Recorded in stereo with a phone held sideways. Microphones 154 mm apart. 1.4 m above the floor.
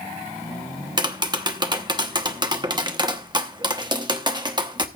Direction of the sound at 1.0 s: 30° right (ahead or behind).